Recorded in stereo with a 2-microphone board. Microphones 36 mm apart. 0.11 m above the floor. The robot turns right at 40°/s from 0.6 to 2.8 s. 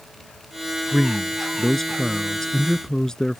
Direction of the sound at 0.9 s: Centre (ahead or behind).